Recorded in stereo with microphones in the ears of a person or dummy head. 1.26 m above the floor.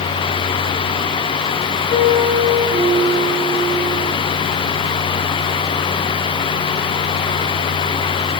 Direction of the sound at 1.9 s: 10° right (ahead or behind).